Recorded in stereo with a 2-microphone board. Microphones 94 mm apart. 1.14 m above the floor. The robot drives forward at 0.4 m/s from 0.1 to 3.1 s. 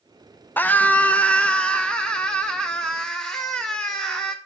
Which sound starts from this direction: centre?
A scream, at 0.6 s.